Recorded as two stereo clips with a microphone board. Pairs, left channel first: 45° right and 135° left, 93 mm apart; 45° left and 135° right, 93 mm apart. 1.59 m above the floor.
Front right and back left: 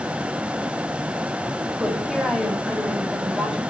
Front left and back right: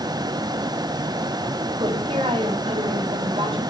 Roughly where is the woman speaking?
Behind right.